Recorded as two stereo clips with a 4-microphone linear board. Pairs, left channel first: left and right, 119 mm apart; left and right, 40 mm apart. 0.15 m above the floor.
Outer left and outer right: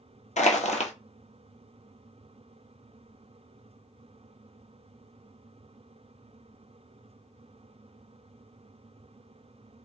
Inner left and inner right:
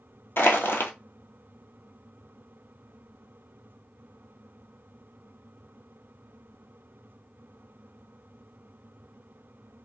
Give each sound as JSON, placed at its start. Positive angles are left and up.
{"t": 0.4, "sound": "crushing", "side_deg": 75, "distance_m": 0.8}